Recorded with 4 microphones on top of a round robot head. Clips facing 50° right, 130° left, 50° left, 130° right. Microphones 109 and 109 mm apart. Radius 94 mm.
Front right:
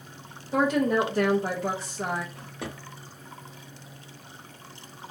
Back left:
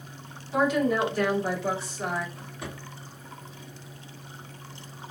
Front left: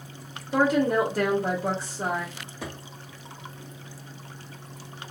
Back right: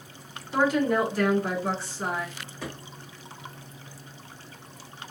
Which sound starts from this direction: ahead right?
A drawer, at 2.4 s.